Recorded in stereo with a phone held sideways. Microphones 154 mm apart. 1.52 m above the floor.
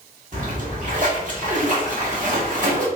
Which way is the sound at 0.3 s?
60° right (ahead or behind).